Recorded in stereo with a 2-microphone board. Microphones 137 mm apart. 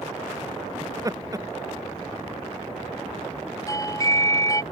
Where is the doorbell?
25° left (ahead or behind).